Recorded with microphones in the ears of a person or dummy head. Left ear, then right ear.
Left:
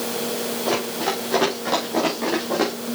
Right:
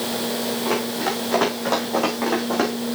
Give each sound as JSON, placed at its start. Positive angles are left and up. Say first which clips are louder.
{"t": 0.7, "sound": "running footsteps", "louder": "left 1 dB", "side_deg": -25, "distance_m": 5.0}